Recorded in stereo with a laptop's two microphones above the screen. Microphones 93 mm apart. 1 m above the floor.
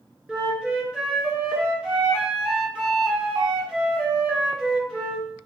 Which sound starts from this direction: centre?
A flute, at 0.3 s.